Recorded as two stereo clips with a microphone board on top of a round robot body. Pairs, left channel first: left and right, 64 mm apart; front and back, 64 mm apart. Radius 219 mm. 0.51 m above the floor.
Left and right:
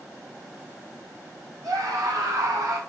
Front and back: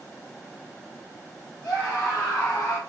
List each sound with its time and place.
1.6 s a scream: 85° right, 2.5 m; by 2.8 s 70° right, 2.5 m